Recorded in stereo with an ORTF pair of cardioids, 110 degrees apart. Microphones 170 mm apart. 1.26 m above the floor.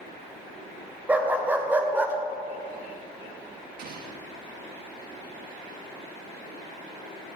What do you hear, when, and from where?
1.1 s a dog barking: 10° right, 2.5 m
3.8 s an explosion: 65° right, 1.4 m